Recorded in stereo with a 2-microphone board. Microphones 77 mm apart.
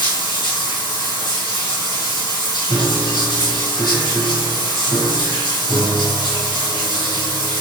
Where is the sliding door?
No sliding door in this recording.